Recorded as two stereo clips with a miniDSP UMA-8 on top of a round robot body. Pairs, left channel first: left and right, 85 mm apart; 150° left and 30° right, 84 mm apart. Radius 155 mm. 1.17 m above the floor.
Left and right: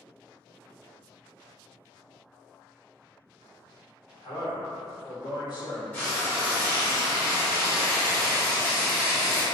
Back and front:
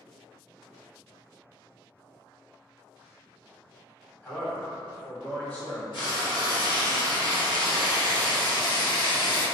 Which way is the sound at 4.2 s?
80° left.